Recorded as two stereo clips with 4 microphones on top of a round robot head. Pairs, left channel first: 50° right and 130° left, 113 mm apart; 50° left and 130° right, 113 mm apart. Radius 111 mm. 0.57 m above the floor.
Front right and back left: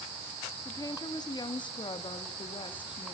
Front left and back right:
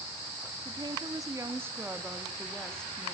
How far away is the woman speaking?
About 1.8 m.